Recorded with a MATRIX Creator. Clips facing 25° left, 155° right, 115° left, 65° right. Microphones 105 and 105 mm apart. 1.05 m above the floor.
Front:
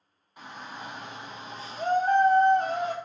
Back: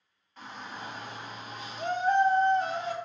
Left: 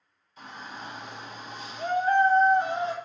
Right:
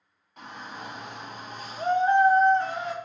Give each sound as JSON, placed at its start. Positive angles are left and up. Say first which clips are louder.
{"t": 0.4, "sound": "a shout", "louder": "even, right 1 dB", "azimuth_deg": -50, "distance_m": 1.6}